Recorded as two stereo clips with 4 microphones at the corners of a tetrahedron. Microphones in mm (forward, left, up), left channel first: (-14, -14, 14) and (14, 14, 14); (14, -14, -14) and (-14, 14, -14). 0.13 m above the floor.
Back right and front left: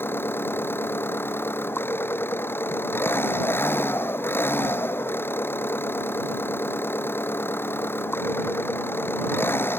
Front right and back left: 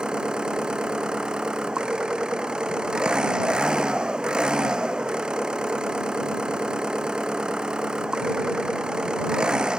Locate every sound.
0.0 s an engine running: 155° right